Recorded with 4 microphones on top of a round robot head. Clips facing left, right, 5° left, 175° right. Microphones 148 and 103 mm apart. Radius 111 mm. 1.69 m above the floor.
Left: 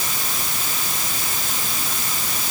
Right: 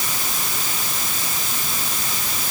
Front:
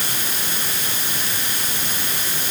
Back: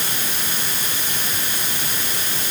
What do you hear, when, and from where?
Only background noise.